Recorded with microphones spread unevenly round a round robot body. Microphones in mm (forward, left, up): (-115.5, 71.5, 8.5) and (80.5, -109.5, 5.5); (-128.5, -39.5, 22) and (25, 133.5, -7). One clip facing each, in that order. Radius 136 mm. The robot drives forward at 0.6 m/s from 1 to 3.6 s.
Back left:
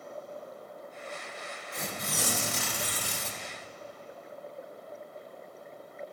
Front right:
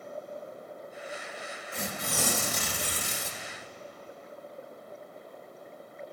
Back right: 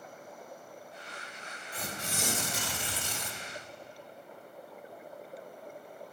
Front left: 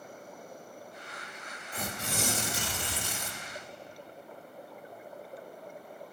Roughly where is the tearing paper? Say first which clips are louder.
Front right 3 dB, front left 3 dB; ahead.